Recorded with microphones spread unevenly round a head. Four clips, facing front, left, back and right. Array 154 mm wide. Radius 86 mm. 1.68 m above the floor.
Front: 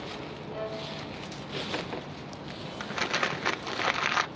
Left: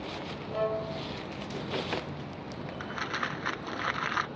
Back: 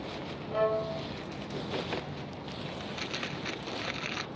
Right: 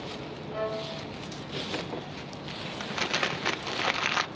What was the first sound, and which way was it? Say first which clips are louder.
A violin: left 2 dB, back 9 dB; 175° right.